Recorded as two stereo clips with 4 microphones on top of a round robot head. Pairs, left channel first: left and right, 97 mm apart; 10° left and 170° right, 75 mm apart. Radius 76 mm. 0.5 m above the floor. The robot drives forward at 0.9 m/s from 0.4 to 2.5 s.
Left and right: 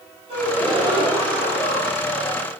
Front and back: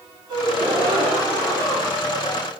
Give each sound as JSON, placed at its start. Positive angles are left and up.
{"t": 0.3, "sound": "a gasp", "azimuth_deg": -130, "distance_m": 3.5}